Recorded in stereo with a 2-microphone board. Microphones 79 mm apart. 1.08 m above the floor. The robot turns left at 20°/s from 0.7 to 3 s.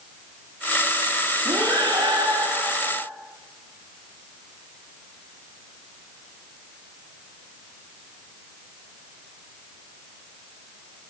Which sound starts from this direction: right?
Breathing, at 1.4 s.